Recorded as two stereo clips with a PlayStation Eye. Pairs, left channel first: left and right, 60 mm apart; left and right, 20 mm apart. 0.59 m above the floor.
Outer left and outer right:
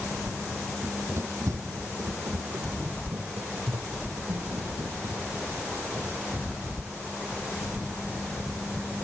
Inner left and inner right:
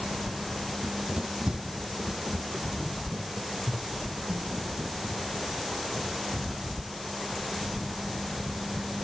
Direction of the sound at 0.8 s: 35° right (ahead or behind).